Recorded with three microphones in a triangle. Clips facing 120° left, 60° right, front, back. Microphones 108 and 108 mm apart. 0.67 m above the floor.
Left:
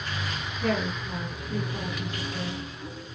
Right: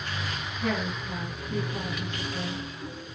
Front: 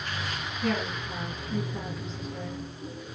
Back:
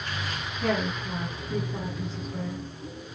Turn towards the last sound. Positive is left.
turn(degrees=-155)